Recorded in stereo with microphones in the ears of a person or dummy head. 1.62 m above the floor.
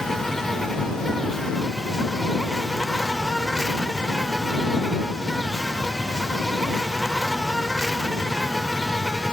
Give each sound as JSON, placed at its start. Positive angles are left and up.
{"t": 0.0, "sound": "an insect", "side_deg": 0}